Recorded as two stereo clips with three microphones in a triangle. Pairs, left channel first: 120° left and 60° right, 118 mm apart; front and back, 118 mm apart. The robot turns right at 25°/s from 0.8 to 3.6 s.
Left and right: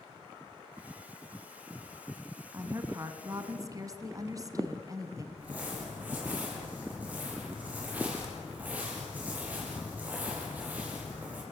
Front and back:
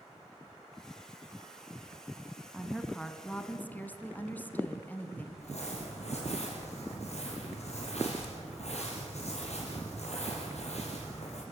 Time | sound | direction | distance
2.5 | a woman speaking | 85° right | 1.4 m
5.4 | crumpling | 15° left | 5 m